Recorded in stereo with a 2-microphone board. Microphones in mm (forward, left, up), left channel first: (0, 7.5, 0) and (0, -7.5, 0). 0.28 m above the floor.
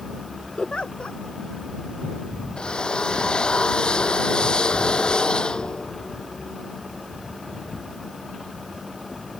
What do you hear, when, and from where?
0.6 s a giggle: 85° left
2.6 s a drill: 55° left (ahead or behind)